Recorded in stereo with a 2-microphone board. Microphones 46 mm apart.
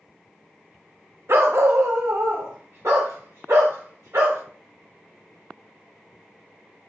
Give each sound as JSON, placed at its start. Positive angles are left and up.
{"t": 1.3, "sound": "a dog barking", "side_deg": -60, "distance_m": 0.6}